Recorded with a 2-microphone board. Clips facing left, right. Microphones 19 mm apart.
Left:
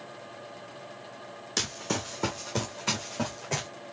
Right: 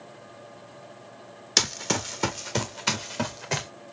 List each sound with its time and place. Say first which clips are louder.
1.6 s running footsteps: right 6 dB; 65° right (ahead or behind), 0.8 m; by 3.7 s 60° right (ahead or behind), 2 m